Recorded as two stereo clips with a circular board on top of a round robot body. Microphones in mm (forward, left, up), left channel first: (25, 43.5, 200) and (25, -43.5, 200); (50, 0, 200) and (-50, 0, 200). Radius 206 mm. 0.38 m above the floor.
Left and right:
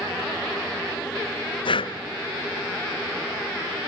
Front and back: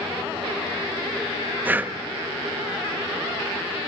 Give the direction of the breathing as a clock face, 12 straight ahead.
8 o'clock.